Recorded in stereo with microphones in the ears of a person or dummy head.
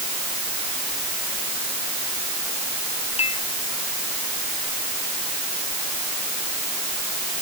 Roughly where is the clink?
Left.